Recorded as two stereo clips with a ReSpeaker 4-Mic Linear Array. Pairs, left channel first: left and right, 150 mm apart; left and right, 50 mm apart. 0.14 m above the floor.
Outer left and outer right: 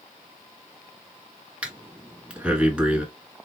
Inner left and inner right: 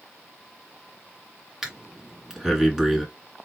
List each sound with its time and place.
1.6 s breathing: 10° right (ahead or behind), 2.0 m